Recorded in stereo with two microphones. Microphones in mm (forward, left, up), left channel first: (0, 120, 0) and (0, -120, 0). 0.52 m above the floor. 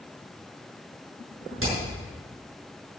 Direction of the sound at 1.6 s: 70° right (ahead or behind).